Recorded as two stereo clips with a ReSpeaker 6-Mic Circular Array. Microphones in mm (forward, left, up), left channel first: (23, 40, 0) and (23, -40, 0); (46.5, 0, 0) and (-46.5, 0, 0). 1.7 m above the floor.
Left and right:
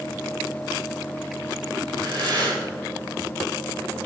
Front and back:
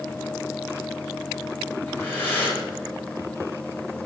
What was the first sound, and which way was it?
Breathing, 70° right.